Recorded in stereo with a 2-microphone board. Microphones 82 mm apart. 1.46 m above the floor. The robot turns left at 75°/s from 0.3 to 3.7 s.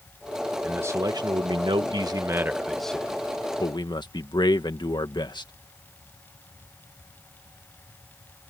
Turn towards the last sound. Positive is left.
turn(degrees=115)